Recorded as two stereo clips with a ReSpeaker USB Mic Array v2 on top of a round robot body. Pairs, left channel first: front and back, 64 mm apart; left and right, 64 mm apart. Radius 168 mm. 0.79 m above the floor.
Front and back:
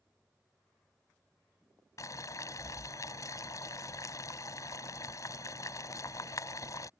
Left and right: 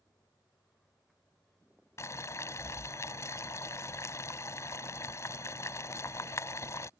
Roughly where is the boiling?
Ahead left.